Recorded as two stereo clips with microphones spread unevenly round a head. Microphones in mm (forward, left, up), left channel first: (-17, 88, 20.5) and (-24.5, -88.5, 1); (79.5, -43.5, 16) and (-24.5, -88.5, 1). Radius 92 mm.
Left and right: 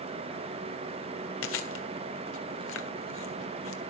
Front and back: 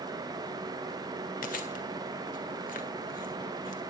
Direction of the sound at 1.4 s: 60° left.